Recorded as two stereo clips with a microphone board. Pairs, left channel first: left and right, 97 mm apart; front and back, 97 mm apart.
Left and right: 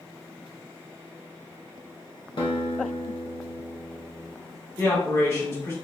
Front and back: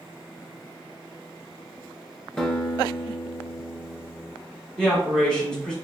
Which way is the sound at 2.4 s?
80° left.